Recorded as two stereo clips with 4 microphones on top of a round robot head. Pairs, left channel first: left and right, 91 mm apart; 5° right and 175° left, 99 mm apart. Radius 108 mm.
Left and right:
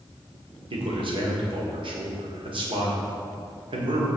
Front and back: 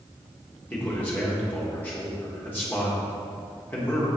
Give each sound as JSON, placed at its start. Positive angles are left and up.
{"t": 0.7, "sound": "a man speaking", "azimuth_deg": -75, "distance_m": 1.7}